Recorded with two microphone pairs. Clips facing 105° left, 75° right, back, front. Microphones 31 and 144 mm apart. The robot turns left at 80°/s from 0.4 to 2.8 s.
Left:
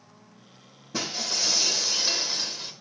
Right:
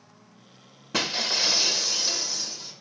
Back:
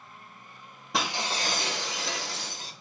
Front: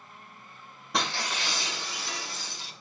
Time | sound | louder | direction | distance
0.9 | breaking glass | right 4 dB, back 1 dB | 90° right | 1.6 m